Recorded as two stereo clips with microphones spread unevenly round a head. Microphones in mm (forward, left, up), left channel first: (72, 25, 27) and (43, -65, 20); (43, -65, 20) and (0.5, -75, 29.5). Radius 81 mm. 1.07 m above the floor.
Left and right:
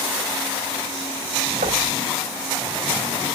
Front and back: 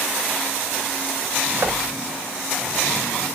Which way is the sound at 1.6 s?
130° right.